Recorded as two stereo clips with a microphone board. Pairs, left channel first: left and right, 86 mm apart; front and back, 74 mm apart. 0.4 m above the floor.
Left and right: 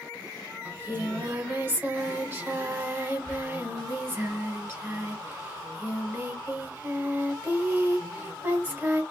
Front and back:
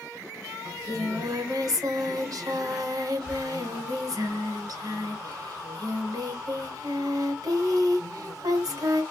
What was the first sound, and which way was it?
Singing, 155° right.